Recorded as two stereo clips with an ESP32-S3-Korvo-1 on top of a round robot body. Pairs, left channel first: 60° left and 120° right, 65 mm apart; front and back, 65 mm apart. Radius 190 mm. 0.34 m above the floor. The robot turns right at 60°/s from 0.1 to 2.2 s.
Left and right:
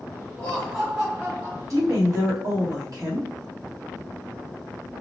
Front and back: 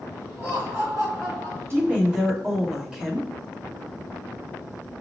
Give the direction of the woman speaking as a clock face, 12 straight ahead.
5 o'clock.